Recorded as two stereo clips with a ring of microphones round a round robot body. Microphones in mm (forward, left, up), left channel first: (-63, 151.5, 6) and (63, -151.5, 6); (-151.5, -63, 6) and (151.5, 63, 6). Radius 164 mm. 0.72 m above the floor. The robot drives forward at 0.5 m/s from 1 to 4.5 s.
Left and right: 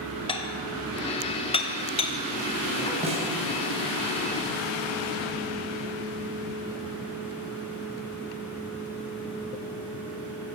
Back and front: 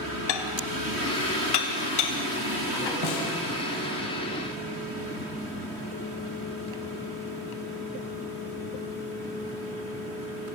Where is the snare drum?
140° right, 4.5 m.